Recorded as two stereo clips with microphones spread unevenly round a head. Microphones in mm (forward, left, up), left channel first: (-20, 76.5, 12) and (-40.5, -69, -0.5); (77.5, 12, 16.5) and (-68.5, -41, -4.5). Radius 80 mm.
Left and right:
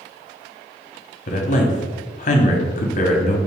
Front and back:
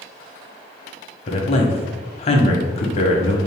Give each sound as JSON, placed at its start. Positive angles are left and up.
{"t": 1.3, "sound": "a man speaking", "azimuth_deg": 65, "distance_m": 0.8}